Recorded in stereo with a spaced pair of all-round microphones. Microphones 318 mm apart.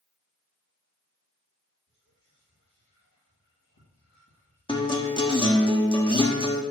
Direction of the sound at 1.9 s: 60° left (ahead or behind).